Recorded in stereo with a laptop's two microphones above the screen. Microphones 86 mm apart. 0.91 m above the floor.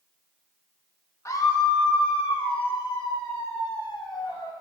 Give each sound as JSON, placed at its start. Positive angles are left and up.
{"t": 1.2, "sound": "a scream", "side_deg": 35, "distance_m": 0.8}